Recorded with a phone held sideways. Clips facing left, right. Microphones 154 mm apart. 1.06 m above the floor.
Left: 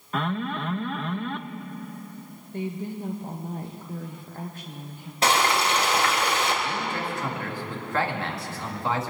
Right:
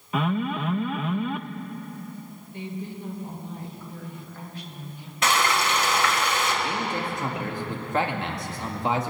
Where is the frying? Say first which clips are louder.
Left 1 dB; 35° left (ahead or behind), 2 m.